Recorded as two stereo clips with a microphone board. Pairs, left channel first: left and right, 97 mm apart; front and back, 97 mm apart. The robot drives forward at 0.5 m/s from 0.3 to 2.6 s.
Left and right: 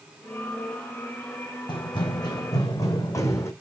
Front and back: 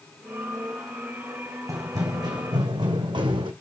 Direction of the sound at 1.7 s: 125° left.